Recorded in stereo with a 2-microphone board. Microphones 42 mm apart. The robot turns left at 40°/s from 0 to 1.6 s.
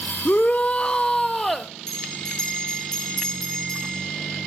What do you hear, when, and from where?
0.2 s a shout: 55° left, 0.5 m; by 1.7 s 5° left, 0.5 m
1.9 s a bell: 15° left (ahead or behind), 4 m